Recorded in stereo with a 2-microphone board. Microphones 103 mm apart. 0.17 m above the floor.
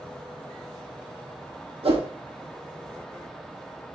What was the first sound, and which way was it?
A whoosh, 65° right (ahead or behind).